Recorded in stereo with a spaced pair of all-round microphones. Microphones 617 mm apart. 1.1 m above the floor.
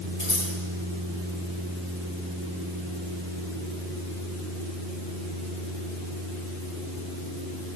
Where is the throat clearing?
I don't hear throat clearing.